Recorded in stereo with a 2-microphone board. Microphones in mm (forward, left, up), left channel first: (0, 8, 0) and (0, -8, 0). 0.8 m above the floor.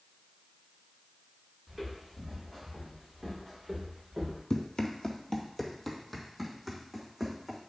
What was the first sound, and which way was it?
Footsteps, 5° left (ahead or behind).